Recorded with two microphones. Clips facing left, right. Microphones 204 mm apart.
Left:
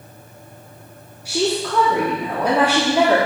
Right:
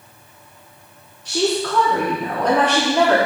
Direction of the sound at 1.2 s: 10° left (ahead or behind).